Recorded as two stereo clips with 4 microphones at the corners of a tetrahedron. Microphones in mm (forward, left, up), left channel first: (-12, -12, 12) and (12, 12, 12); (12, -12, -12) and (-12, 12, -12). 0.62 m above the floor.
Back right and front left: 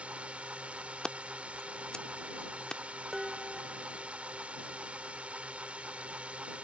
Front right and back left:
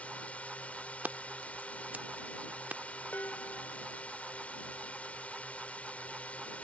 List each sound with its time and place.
0.0 s a drone: 5° right
1.0 s scissors: 160° left
3.1 s dishes clattering: 40° right